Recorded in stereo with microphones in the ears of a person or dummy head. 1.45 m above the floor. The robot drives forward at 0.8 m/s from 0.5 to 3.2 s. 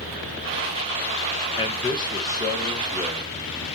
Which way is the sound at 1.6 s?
25° left (ahead or behind).